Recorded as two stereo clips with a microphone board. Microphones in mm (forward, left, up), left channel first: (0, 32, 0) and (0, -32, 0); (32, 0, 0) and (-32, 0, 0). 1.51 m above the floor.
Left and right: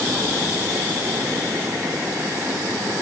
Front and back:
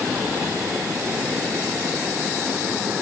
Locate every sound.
Only background noise.